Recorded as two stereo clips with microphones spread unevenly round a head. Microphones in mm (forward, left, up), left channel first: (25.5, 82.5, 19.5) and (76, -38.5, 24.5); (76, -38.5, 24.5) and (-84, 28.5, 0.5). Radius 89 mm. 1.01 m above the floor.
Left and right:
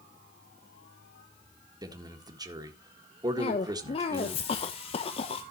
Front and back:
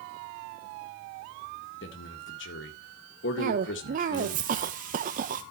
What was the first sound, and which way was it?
A man speaking, 10° right.